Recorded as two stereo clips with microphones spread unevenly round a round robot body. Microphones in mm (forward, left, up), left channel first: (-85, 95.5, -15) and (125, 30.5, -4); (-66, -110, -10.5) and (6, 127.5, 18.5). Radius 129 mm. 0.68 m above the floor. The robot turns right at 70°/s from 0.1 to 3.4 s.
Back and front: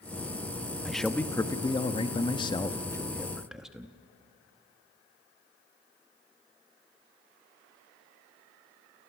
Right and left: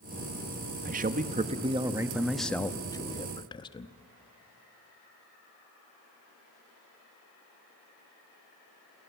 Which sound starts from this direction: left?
A man speaking, at 0.8 s.